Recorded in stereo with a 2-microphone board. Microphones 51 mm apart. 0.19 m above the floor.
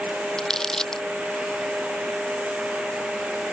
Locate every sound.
0.4 s crumpling: 10° left (ahead or behind)